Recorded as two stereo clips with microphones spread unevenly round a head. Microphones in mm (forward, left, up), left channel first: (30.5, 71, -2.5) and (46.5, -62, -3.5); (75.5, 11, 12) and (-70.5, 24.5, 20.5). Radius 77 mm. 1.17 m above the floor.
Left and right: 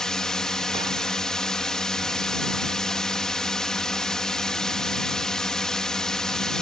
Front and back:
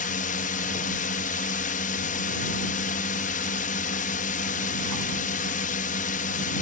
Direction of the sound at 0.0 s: 10° left.